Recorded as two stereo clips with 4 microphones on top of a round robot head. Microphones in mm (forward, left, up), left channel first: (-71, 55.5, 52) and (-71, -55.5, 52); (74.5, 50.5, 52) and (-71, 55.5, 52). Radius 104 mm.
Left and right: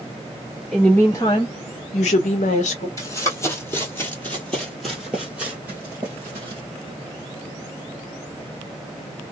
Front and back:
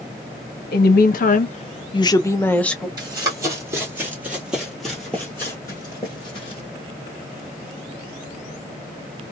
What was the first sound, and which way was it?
A woman speaking, straight ahead.